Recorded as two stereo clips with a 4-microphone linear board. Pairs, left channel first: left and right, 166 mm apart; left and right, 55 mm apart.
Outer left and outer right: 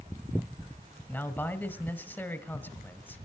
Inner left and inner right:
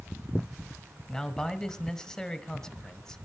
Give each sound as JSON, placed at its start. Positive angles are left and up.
{"t": 1.1, "sound": "a man speaking", "side_deg": 10, "distance_m": 1.5}